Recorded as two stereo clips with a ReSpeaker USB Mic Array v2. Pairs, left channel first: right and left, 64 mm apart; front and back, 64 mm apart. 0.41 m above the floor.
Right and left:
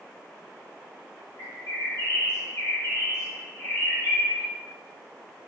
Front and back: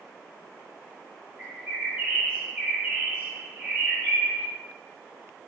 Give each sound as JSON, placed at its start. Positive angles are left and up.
{"t": 1.4, "sound": "a bird", "azimuth_deg": -120, "distance_m": 2.0}